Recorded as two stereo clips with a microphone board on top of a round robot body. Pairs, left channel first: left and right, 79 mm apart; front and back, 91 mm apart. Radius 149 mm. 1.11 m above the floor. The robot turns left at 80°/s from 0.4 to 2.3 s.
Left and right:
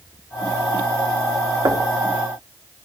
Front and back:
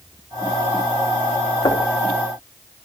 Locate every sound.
1.6 s knocking: 45° right, 2.5 m; by 1.9 s 65° right, 2.5 m